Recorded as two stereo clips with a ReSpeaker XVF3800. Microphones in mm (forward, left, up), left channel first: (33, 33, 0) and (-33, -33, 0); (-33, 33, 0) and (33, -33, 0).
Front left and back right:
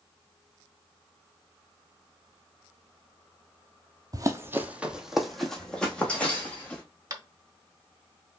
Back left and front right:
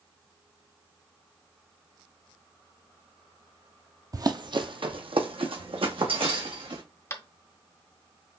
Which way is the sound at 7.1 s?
175° right.